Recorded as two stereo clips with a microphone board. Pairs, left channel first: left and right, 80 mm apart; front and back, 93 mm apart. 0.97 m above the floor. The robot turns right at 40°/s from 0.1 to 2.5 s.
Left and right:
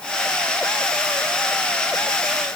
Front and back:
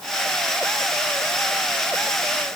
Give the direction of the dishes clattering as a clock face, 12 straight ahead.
No dishes clattering in this recording.